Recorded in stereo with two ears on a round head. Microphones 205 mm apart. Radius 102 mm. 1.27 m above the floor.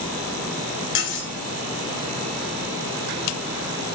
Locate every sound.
0.9 s cutlery clinking: 50° left (ahead or behind), 3 m